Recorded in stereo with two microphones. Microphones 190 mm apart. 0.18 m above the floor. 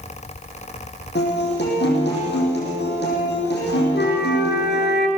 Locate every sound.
1.1 s a guitar: 65° left (ahead or behind), 7 m
3.9 s a flute: 65° left (ahead or behind), 2.5 m